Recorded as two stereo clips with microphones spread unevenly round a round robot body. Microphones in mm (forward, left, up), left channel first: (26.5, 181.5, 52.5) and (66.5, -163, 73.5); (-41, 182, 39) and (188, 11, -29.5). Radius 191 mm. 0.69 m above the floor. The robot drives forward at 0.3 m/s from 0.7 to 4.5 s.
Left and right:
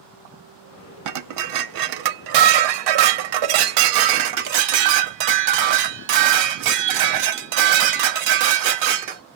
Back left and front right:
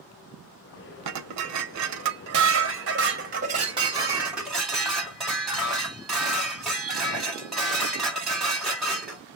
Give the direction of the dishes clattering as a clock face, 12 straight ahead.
2 o'clock.